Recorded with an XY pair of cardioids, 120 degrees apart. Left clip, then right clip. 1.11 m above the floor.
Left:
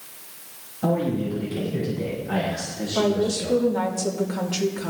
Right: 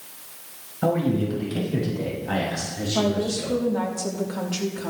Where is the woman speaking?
Straight ahead, 2.5 m.